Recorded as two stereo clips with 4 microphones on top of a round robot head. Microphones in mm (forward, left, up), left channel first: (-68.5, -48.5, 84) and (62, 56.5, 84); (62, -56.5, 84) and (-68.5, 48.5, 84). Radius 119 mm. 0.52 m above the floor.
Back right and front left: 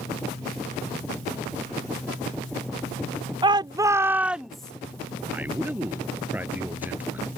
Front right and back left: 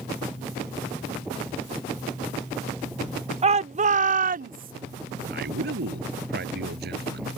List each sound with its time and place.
3.4 s a shout: 95° left; by 4.7 s 135° left
5.3 s a man speaking: 120° left